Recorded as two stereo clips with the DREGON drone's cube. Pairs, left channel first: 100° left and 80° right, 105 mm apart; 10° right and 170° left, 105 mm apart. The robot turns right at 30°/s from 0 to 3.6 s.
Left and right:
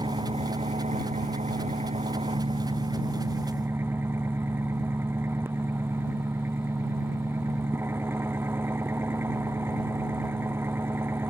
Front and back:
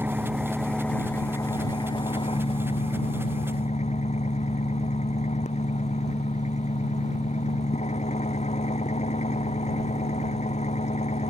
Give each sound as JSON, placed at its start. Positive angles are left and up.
{"t": 0.0, "sound": "an engine running", "azimuth_deg": -120}